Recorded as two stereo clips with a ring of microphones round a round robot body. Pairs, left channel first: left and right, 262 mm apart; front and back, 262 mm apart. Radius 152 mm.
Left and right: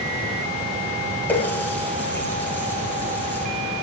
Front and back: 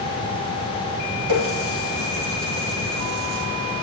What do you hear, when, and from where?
1.3 s a running tap: 175° left, 5.5 m